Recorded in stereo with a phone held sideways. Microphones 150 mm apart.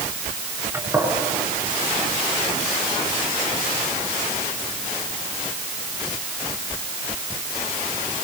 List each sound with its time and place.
0.7 s a gunshot: 15° right (ahead or behind), 7.5 m